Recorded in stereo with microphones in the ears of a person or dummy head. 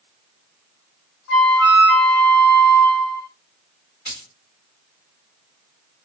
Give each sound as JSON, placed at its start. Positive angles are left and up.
{"t": 1.3, "sound": "a flute", "side_deg": 70, "distance_m": 1.8}
{"t": 4.0, "sound": "a dropped coin", "side_deg": 20, "distance_m": 1.5}